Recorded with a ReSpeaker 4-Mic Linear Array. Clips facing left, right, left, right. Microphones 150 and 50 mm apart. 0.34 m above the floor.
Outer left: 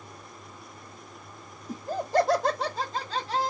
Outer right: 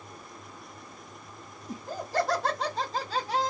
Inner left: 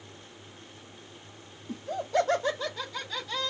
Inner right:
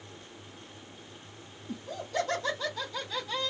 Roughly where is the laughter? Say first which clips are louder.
Outer left 5 dB, inner left 5 dB; left.